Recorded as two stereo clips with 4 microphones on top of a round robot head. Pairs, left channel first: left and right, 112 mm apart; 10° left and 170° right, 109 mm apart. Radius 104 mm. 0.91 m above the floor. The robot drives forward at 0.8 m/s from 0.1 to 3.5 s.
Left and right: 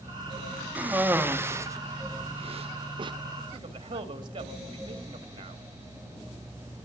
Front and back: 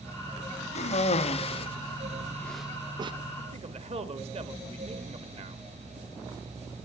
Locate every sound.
0.8 s a cough: 15° right, 1.6 m; by 3.1 s 135° right, 0.6 m
3.5 s a man speaking: 140° right, 1.4 m